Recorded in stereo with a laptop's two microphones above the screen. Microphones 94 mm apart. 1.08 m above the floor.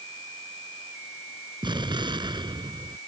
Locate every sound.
1.6 s an explosion: 55° right (ahead or behind)